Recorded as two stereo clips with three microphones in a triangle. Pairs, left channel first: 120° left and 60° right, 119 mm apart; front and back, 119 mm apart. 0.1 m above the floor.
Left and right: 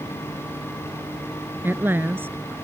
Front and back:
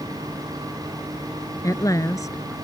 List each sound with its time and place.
1.6 s a woman speaking: 10° right